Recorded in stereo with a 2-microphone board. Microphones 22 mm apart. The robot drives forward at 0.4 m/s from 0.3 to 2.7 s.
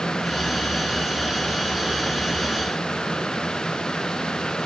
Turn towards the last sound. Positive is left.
No sound to turn to.